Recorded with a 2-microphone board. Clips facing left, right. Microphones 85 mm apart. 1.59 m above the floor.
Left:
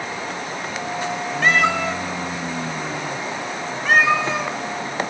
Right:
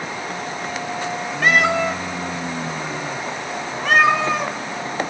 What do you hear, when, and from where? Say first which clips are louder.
1.4 s a cat meowing: right 2 dB; 5° right (ahead or behind), 1.0 m; by 4.5 s 75° right (ahead or behind), 3 m